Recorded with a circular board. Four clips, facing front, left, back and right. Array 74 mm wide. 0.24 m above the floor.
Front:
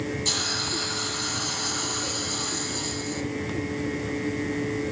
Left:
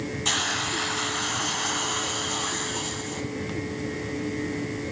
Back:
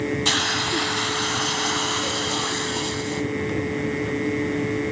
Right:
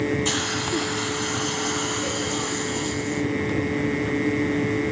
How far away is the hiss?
About 1.0 m.